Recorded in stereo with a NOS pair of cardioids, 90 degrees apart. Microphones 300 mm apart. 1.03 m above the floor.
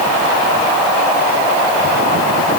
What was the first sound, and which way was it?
Only background noise.